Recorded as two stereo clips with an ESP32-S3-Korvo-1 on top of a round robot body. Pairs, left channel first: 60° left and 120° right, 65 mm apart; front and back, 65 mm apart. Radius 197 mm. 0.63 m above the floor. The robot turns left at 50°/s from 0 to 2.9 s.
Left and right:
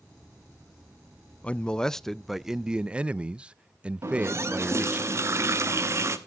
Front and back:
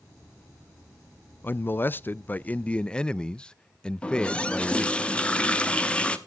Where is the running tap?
75° right, 1.1 m.